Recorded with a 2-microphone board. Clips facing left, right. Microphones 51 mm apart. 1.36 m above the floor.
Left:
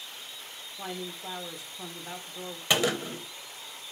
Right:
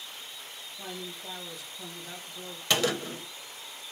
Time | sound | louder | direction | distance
0.8 | a man speaking | left 3 dB | 35° left (ahead or behind) | 1.0 m
2.7 | a gunshot | left 1 dB | 15° left (ahead or behind) | 0.8 m